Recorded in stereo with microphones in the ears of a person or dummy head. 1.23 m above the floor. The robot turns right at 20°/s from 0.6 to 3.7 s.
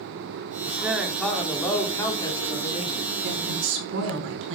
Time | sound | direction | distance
0.6 | a man speaking | 10° right | 3.5 m
3.2 | a woman speaking | 55° right (ahead or behind) | 5 m